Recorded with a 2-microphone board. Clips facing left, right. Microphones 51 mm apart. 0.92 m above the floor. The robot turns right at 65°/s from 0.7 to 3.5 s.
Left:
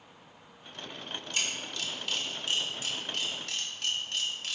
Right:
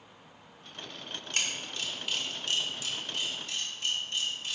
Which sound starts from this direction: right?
A camera shutter, at 1.3 s.